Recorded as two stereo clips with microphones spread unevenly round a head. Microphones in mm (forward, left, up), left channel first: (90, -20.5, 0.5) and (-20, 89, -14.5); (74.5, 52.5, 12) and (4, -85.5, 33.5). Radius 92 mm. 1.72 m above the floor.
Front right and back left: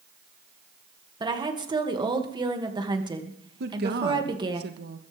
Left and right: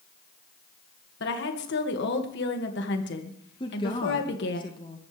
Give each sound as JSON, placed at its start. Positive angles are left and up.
{"t": 1.2, "sound": "a woman speaking", "azimuth_deg": 75, "distance_m": 2.5}
{"t": 3.6, "sound": "a woman speaking", "azimuth_deg": 130, "distance_m": 1.4}